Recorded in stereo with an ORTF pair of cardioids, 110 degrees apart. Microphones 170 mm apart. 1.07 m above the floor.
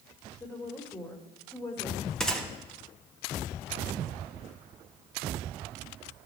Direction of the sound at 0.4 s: 25° left.